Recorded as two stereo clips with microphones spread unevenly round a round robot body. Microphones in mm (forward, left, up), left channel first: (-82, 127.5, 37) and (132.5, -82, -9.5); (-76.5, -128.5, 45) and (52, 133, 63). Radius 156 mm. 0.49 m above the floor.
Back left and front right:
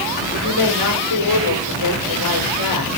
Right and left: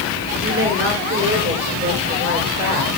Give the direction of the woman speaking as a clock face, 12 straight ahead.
8 o'clock.